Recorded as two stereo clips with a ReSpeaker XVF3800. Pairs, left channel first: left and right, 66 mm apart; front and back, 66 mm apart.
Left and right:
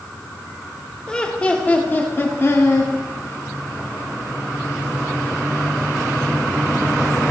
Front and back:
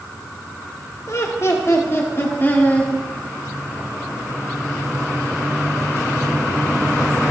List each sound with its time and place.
1.1 s laughter: 10° left, 1.6 m; by 2.9 s 60° left, 1.7 m